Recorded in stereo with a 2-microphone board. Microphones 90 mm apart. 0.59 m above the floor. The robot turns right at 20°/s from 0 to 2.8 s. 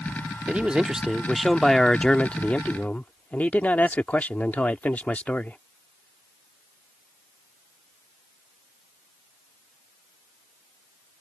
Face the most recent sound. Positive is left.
turn(degrees=25)